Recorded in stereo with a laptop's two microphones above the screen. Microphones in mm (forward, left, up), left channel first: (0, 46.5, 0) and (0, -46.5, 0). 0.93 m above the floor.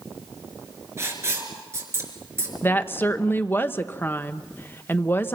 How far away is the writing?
About 3.5 m.